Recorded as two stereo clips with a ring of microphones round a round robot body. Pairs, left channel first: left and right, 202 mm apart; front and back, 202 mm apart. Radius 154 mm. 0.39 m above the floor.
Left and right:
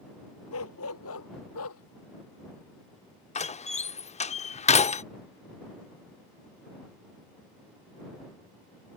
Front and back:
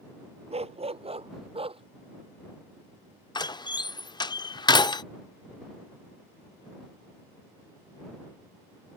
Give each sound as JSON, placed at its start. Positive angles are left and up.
{"t": 0.5, "sound": "a dog barking", "azimuth_deg": 120}
{"t": 3.4, "sound": "a door slam", "azimuth_deg": 60}